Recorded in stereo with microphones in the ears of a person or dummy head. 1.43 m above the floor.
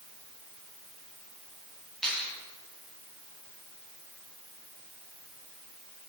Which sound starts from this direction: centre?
A finger snap, at 2.0 s.